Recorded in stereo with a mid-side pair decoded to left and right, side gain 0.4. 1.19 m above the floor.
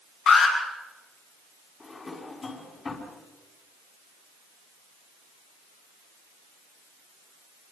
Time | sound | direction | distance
0.3 | an alarm | 65° left | 7.5 m
1.8 | a drawer | 40° left | 5.5 m